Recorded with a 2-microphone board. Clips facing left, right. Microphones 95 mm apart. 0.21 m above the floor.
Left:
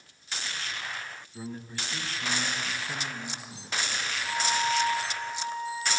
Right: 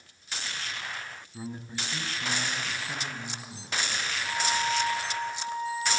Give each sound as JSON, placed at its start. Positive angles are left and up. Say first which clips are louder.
{"t": 1.3, "sound": "a man speaking", "louder": "right 1 dB", "side_deg": -15, "distance_m": 1.4}
{"t": 4.2, "sound": "a flute", "louder": "left 1 dB", "side_deg": 15, "distance_m": 7.0}